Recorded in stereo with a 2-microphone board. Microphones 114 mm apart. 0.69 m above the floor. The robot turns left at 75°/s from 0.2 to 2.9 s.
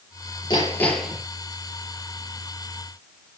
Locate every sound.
0.5 s hammering: 40° left, 6 m; by 1.2 s 15° right, 6 m